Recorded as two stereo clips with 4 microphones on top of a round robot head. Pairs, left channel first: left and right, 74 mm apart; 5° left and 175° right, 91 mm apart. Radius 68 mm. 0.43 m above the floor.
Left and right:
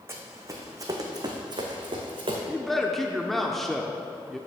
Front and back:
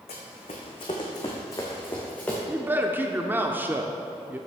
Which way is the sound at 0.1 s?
30° right.